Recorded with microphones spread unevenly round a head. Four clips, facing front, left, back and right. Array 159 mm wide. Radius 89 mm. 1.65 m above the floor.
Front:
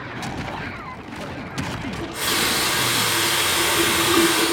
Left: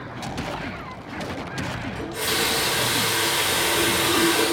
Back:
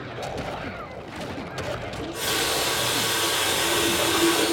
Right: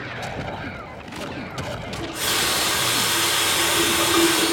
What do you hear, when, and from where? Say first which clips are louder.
1.9 s a running tap: left 1 dB, front 4 dB; 20° right, 1.6 m